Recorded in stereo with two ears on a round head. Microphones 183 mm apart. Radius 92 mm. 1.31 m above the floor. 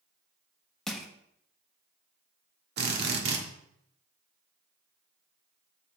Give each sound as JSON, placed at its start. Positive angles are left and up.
{"t": 0.9, "sound": "crushing", "side_deg": 5, "distance_m": 1.1}
{"t": 2.8, "sound": "a drill", "side_deg": -55, "distance_m": 1.3}